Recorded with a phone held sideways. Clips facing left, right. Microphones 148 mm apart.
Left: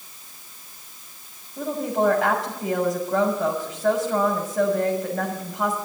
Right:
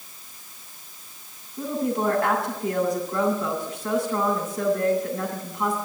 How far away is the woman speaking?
About 6 m.